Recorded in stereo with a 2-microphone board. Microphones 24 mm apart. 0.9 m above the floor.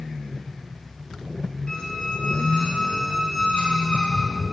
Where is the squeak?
40° left (ahead or behind), 1.0 m.